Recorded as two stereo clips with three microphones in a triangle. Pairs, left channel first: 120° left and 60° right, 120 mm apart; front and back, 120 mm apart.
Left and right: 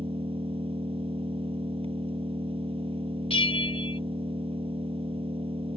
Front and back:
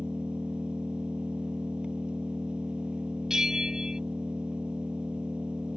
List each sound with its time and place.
0.0 s an engine running: 100° right
3.3 s a bell: 95° left